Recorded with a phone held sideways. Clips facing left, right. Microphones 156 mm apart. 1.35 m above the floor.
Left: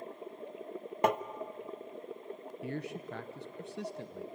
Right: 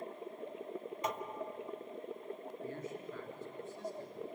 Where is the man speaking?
75° left (ahead or behind), 0.9 m.